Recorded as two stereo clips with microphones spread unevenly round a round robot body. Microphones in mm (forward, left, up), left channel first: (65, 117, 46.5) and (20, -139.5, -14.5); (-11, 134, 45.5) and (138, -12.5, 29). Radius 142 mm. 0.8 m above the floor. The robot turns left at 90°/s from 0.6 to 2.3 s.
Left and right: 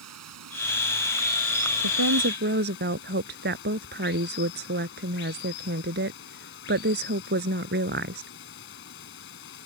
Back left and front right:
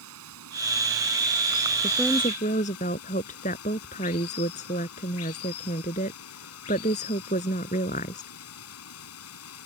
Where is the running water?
75° right; by 9.7 s 135° left.